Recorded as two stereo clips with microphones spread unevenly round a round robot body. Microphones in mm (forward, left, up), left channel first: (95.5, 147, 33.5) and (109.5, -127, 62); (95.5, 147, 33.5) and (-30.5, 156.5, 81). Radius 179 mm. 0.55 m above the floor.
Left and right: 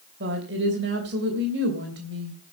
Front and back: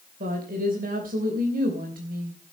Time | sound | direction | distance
0.2 | a woman speaking | 145° right | 3 m